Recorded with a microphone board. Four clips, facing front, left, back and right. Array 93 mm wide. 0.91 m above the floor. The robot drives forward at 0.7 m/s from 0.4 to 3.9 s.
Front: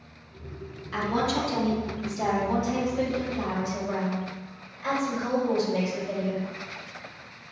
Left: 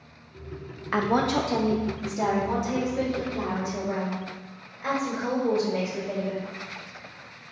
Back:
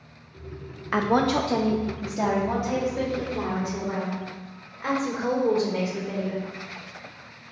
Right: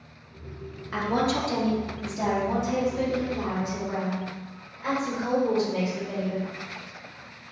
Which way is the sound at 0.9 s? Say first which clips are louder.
Left 2 dB, back 5 dB; 140° left.